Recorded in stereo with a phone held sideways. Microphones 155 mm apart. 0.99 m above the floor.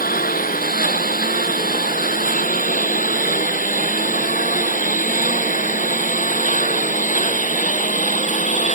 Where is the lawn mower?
65° left (ahead or behind); by 8.7 s 50° left (ahead or behind).